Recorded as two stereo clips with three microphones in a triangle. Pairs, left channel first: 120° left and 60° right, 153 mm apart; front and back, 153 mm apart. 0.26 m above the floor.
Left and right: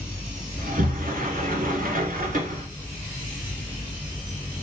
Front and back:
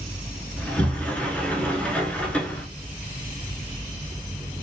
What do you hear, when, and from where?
0.6 s a sliding door: 80° right, 0.7 m